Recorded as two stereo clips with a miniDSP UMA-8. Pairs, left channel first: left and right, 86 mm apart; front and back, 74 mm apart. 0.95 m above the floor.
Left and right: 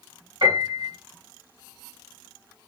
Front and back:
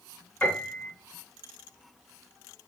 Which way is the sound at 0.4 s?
65° right.